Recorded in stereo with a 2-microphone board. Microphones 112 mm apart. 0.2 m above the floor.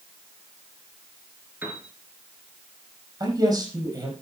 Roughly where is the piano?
Centre.